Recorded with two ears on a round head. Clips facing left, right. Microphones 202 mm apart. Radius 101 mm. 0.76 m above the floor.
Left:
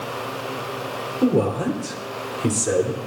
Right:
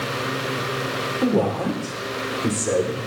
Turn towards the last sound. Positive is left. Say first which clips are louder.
# left 2 dB
turn(degrees=15)  # may be behind; listen again after turning